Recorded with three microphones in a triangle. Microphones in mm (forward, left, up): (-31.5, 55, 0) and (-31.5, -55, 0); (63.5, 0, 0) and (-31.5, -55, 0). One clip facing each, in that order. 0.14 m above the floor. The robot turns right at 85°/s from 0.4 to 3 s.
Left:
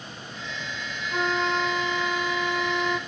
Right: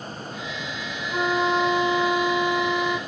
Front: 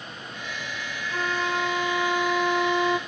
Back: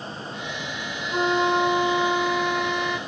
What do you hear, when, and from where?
1.1 s a flute: 175° right, 0.5 m; by 3.0 s 15° right, 0.5 m